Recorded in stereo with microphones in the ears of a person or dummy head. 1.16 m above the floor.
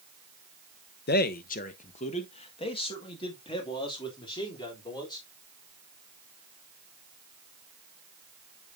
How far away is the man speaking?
About 0.7 m.